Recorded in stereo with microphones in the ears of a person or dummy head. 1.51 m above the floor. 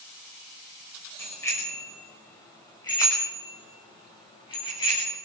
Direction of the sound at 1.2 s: 10° left (ahead or behind).